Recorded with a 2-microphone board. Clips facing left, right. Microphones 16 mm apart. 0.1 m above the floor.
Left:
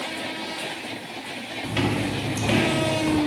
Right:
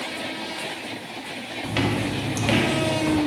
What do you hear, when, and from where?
1.6 s footsteps: 25° right (ahead or behind), 1.6 m; by 3.2 s 60° right (ahead or behind), 2.5 m